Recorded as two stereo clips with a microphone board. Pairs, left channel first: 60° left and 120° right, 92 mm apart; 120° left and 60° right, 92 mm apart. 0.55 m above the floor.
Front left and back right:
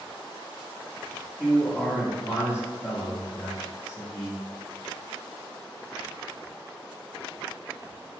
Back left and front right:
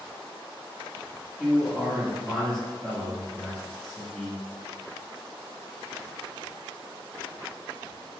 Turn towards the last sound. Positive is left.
turn(degrees=45)